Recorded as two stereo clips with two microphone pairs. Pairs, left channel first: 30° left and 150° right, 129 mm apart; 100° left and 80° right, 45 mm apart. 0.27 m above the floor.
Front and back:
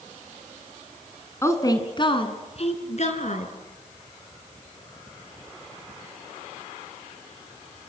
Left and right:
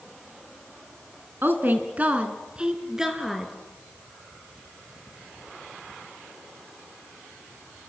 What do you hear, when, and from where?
1.4 s a woman speaking: 40° right, 2.5 m; by 3.5 s 5° left, 4 m